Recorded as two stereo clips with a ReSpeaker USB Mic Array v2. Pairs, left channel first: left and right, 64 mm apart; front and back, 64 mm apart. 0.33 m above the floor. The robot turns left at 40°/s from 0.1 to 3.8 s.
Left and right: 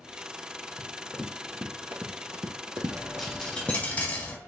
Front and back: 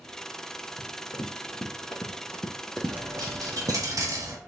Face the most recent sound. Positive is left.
turn(degrees=155)